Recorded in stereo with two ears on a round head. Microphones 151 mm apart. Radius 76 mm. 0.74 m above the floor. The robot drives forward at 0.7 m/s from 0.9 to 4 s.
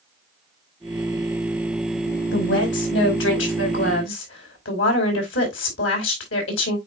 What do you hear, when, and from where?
2.3 s a woman speaking: 70° left (ahead or behind), 5 m; by 6.8 s 80° left, 4.5 m